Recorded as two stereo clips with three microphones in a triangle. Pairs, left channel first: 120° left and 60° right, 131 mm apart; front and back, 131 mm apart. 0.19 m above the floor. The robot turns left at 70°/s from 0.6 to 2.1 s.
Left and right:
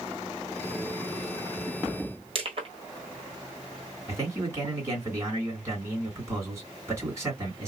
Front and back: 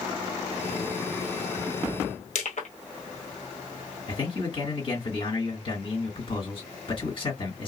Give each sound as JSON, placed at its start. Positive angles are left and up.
{"t": 2.4, "sound": "crushing", "azimuth_deg": -15, "distance_m": 1.4}
{"t": 4.1, "sound": "a man speaking", "azimuth_deg": 0, "distance_m": 2.0}